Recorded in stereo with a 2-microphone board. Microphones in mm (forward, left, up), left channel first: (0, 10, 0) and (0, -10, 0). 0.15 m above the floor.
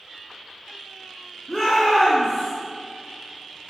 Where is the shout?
20° left (ahead or behind), 1.4 m; by 2.5 s 15° left (ahead or behind), 1.7 m.